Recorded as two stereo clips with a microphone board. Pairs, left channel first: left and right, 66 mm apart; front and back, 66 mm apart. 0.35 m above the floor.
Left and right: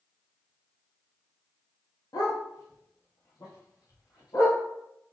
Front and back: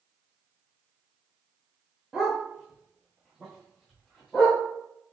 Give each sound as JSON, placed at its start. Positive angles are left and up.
{"t": 2.1, "sound": "a dog barking", "azimuth_deg": 100, "distance_m": 1.6}